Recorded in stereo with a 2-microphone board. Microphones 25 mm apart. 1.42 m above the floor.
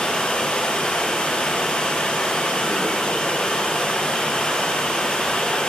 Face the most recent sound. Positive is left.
turn(degrees=45)  # may be behind; listen again after turning